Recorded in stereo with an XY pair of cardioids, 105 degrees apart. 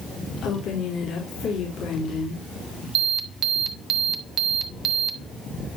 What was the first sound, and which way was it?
A woman speaking, 70° left.